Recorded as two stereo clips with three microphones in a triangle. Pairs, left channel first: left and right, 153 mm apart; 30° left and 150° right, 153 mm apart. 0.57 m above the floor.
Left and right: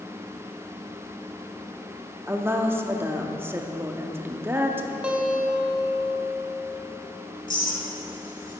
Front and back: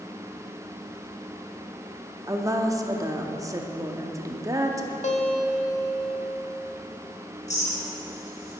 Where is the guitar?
10° right, 0.8 m.